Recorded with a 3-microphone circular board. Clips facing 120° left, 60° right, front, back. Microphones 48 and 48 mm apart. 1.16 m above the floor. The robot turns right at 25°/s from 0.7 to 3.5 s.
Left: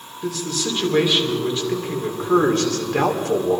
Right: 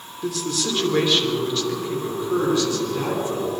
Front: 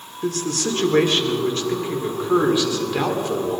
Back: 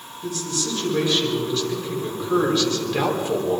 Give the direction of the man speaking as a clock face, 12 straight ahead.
11 o'clock.